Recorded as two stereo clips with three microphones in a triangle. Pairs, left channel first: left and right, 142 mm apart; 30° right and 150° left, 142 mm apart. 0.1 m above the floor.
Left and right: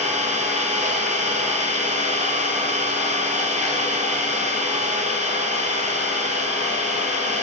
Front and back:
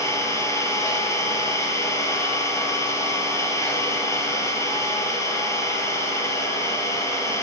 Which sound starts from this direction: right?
An engine running, at 0.0 s.